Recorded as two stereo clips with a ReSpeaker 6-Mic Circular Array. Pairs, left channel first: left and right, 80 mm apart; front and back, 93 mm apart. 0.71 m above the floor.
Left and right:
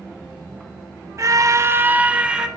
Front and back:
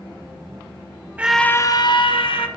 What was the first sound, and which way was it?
A scream, 115° right.